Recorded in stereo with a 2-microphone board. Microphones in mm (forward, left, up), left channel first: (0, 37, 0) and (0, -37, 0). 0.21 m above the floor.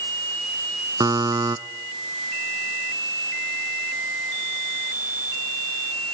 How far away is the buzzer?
About 0.6 m.